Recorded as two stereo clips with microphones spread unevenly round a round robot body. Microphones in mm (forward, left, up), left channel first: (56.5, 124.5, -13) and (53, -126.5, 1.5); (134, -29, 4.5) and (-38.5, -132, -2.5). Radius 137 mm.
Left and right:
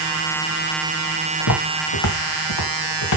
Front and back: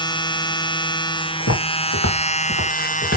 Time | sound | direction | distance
1.4 | footsteps | 70° left | 2.5 m